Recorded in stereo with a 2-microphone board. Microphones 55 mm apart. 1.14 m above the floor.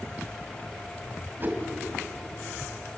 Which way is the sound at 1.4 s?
35° right (ahead or behind).